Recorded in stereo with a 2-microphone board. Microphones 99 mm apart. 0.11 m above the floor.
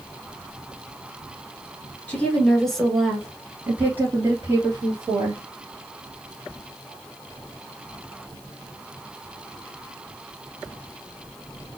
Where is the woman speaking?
15° left (ahead or behind), 1.5 m; by 5.4 s 45° right (ahead or behind), 2.0 m.